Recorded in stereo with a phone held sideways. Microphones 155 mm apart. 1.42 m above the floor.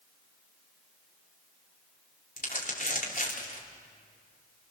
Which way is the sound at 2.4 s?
60° left (ahead or behind).